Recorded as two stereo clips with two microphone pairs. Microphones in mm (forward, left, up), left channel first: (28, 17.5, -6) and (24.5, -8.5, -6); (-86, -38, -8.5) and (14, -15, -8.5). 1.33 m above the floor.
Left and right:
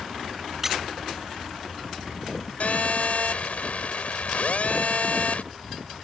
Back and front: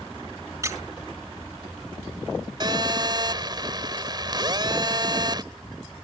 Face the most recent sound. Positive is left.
turn(degrees=60)